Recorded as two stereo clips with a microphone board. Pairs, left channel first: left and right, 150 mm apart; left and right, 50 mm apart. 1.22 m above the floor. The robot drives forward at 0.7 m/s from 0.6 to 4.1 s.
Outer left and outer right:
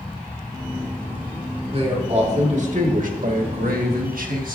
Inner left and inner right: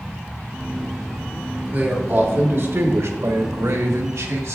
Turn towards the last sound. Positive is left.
turn(degrees=-75)  # may be behind; listen again after turning